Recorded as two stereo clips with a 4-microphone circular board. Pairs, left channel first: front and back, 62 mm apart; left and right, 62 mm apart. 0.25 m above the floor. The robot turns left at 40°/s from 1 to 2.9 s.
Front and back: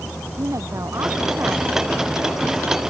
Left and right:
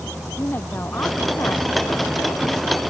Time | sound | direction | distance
0.4 | a woman speaking | 145° left | ?